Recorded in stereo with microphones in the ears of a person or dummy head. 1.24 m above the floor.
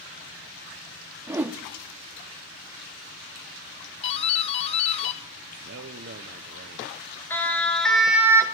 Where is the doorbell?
30° left (ahead or behind), 0.8 m.